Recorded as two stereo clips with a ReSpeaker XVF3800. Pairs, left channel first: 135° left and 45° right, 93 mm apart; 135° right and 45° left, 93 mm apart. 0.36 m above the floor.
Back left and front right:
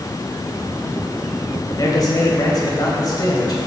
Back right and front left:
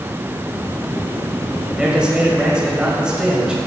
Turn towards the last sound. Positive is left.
turn(degrees=120)